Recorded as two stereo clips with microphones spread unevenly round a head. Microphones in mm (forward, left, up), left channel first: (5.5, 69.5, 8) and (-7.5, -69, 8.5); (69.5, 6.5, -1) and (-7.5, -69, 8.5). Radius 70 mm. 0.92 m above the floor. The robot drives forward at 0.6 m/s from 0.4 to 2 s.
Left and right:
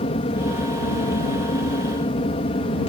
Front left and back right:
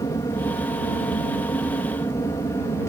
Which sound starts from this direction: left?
An aircraft, at 0.0 s.